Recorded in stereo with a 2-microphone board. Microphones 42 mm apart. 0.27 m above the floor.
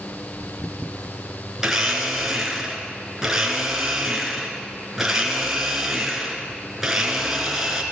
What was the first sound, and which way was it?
A blender, 10° right (ahead or behind).